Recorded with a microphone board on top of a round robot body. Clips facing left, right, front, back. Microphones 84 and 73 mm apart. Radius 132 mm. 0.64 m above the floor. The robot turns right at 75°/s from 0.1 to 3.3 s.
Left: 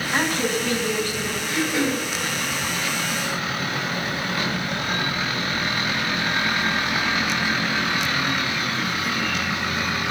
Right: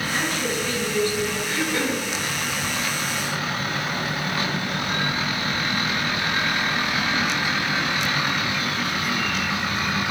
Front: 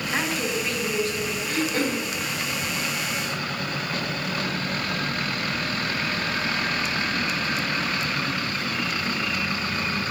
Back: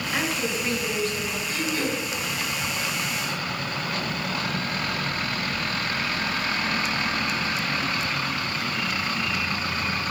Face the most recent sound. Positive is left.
turn(degrees=130)